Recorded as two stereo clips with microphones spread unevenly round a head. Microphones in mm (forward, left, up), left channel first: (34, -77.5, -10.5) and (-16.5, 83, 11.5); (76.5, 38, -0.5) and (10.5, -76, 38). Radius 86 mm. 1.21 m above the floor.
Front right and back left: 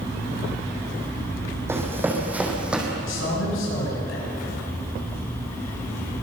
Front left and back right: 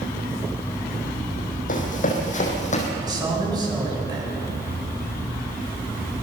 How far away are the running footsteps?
About 3.5 m.